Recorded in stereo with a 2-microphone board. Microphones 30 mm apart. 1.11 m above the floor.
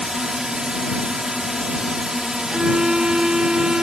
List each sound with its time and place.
0.0 s a drone: 25° right (ahead or behind)
2.5 s a violin: 30° right (ahead or behind)